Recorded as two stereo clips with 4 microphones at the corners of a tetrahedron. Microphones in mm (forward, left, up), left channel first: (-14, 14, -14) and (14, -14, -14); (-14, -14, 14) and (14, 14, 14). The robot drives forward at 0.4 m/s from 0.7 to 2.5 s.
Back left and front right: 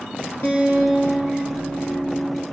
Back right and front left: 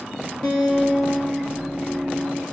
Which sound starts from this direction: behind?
A guitar, at 0.4 s.